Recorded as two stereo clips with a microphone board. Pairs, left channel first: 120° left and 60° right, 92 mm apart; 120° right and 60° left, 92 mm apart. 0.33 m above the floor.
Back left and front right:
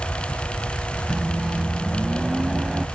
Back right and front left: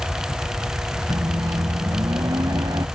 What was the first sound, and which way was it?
A microwave, 25° left.